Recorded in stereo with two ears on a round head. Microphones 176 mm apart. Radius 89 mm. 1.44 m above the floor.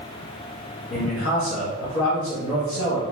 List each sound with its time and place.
0.9 s a man speaking: 65° left (ahead or behind), 1.4 m